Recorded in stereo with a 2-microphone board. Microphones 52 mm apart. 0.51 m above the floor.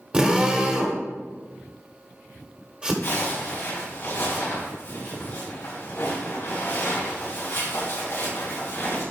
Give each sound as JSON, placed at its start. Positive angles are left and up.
{"t": 0.1, "sound": "a drill", "side_deg": -20, "distance_m": 1.5}
{"t": 3.0, "sound": "a zipper", "side_deg": 50, "distance_m": 4.0}